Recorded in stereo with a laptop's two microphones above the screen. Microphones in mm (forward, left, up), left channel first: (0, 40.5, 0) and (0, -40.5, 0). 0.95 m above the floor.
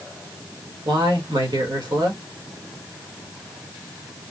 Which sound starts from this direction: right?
A man speaking, at 0.8 s.